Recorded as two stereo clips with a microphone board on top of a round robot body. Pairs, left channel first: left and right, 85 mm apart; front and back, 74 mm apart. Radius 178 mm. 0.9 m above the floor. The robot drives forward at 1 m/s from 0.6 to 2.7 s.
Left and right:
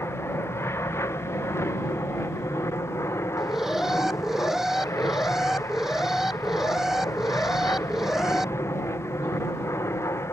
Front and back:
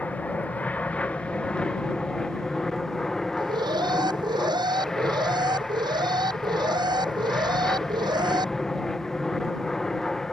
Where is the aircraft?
55° left; by 10.3 s 80° left.